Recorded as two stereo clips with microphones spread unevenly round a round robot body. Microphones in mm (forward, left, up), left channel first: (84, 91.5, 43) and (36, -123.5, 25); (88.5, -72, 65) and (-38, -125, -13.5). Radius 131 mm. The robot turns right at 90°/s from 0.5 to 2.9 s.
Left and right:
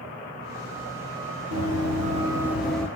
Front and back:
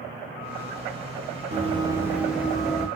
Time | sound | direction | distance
1.5 | running footsteps | 100° right | 1.3 m